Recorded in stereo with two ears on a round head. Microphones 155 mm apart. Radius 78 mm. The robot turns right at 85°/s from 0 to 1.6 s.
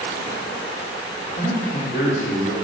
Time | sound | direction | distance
1.4 | a man speaking | 35° left (ahead or behind) | 1.0 m